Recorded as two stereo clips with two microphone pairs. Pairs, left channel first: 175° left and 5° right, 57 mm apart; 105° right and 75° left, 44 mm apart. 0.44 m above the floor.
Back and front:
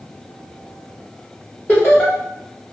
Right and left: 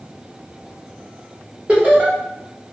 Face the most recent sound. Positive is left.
turn(degrees=125)